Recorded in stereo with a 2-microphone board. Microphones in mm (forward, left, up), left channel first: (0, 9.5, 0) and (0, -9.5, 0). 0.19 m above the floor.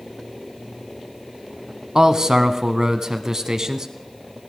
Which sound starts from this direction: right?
A man speaking, at 1.9 s.